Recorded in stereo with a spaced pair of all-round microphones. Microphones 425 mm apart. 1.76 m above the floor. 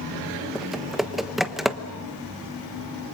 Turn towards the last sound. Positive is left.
turn(degrees=0)  # may be behind; listen again after turning